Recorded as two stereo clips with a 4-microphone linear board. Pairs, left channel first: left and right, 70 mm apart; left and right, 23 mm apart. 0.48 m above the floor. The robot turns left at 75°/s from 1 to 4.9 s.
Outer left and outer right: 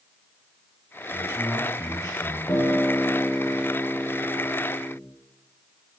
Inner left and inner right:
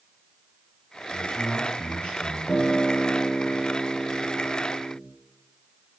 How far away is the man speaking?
About 4 m.